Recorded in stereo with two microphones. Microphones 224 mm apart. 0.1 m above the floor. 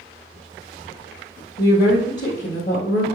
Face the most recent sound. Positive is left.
turn(degrees=40)  # may be behind; listen again after turning